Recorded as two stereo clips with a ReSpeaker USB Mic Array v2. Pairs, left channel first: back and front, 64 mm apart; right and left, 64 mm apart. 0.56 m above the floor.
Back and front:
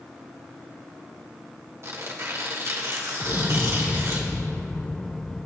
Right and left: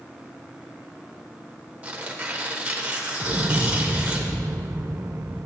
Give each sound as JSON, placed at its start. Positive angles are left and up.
{"t": 1.8, "sound": "tearing paper", "azimuth_deg": 25, "distance_m": 2.5}
{"t": 3.2, "sound": "an explosion", "azimuth_deg": 105, "distance_m": 0.8}